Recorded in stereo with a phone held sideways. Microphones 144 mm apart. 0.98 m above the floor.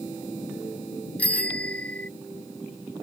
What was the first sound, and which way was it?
A bicycle bell, 10° left (ahead or behind).